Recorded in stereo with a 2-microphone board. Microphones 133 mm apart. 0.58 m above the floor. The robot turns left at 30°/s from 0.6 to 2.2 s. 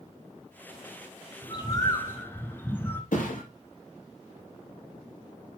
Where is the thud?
85° left, 3.5 m.